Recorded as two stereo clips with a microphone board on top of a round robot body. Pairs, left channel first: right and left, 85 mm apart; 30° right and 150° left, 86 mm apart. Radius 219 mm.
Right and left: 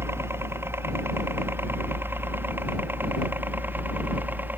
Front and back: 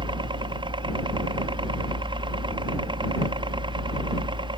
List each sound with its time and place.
0.0 s a helicopter: 150° left; by 4.6 s 160° left